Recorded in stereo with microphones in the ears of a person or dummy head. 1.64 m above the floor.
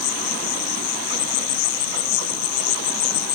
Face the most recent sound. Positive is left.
turn(degrees=85)